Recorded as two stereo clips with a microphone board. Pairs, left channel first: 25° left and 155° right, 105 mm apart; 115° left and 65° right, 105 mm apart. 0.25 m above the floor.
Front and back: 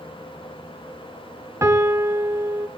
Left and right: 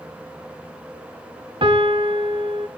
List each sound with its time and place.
1.6 s a piano: 95° right, 1.2 m